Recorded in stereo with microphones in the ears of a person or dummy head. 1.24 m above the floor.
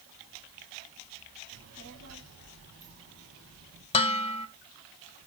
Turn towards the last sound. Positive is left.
turn(degrees=35)  # may be behind; listen again after turning